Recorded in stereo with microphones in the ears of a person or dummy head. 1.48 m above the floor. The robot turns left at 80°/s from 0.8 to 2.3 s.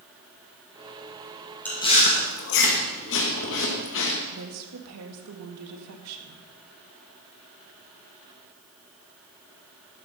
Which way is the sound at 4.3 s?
80° right.